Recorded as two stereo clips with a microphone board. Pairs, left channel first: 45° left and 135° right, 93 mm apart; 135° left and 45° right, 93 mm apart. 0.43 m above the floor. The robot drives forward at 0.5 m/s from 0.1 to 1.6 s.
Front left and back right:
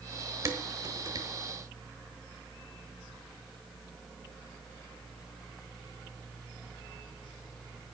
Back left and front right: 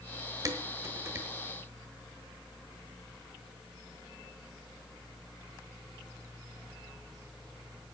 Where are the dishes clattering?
85° right, 1.3 m; by 1.3 s 105° right, 1.4 m.